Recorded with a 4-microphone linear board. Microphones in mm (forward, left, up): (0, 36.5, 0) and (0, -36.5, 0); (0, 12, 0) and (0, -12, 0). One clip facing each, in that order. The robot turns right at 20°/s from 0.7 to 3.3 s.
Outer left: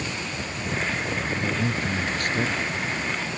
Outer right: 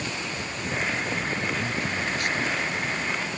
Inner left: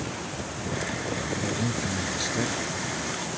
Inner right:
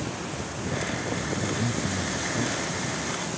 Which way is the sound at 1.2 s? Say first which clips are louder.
Outer left 2 dB, even; 25° left.